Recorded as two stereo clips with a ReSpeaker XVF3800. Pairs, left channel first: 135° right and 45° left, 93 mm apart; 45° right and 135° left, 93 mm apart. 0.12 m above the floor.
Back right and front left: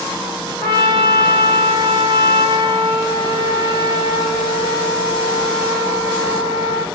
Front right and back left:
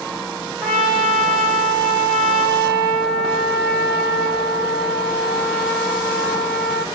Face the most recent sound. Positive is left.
turn(degrees=30)